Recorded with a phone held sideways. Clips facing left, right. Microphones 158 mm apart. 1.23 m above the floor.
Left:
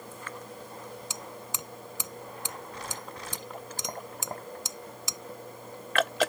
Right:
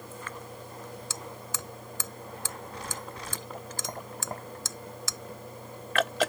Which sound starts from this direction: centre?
Hammering, at 1.1 s.